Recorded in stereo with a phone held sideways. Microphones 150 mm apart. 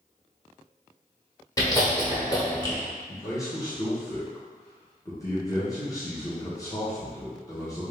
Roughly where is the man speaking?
Left.